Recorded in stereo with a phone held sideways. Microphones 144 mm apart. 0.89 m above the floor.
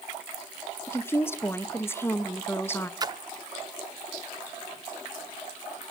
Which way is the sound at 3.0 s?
30° right (ahead or behind).